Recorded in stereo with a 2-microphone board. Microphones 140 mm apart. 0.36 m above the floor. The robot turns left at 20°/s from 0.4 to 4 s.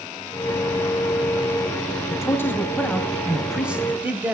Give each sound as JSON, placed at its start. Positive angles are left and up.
{"t": 2.1, "sound": "a man speaking", "azimuth_deg": 25, "distance_m": 1.7}